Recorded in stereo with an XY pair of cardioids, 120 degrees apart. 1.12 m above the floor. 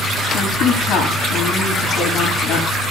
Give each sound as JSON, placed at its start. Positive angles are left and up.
{"t": 0.3, "sound": "a woman speaking", "azimuth_deg": 65, "distance_m": 8.5}